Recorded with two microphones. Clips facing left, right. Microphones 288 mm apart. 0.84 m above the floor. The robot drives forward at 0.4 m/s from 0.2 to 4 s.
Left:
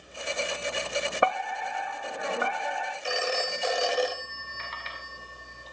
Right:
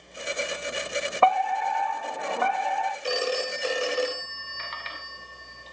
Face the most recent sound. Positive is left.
turn(degrees=-30)  # may be behind; listen again after turning